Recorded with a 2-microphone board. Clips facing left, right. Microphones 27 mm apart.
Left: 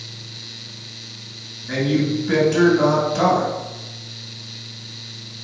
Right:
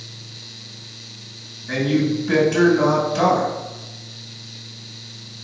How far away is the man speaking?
About 1.8 m.